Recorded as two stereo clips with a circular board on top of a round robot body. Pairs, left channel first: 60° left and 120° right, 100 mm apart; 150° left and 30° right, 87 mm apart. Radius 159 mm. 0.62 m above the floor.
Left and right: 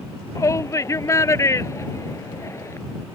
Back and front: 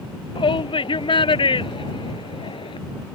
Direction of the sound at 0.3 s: 120° left.